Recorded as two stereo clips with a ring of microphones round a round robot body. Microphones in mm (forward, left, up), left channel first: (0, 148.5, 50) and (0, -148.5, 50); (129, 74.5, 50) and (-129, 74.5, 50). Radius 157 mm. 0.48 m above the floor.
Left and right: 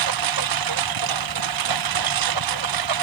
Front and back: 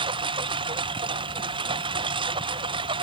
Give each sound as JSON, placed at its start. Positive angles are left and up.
{"t": 0.0, "sound": "a lawn mower", "azimuth_deg": -105}